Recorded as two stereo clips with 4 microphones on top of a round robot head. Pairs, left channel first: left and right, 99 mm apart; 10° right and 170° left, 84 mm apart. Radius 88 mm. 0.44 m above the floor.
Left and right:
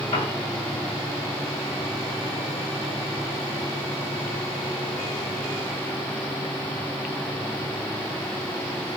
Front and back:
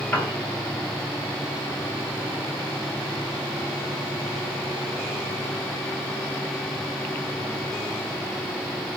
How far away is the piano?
About 4 m.